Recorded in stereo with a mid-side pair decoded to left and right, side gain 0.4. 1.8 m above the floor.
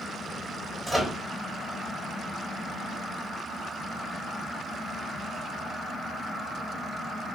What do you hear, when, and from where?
0.9 s a microwave: straight ahead, 1.2 m